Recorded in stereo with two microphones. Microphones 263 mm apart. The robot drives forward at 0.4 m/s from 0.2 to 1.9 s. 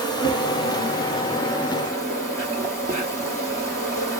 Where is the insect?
15° left (ahead or behind), 1.4 m; by 4.2 s 10° left (ahead or behind), 2.0 m.